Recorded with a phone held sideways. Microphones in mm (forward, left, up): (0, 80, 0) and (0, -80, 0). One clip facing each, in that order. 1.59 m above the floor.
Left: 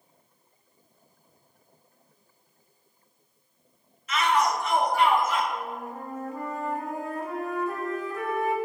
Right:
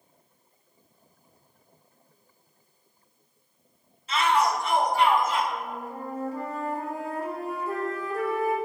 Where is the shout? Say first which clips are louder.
Right 1 dB; 30° right (ahead or behind), 1.2 m.